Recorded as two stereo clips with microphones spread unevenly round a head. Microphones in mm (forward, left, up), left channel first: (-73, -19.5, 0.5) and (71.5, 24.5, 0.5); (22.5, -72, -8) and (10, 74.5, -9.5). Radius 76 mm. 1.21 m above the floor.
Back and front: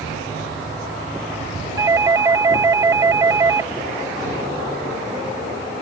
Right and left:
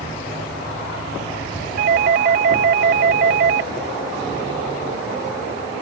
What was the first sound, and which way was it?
A doorbell, 85° left.